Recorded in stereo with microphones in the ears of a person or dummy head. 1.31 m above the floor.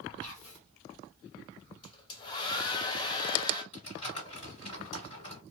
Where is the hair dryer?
30° left (ahead or behind), 0.7 m.